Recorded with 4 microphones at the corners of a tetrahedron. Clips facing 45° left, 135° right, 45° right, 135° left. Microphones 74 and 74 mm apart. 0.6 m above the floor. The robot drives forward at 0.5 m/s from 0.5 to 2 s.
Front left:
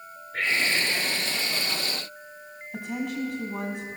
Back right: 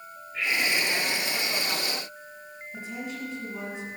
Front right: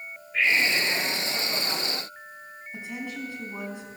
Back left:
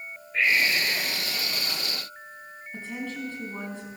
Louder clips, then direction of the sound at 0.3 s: Front left 1 dB, even; 40° left.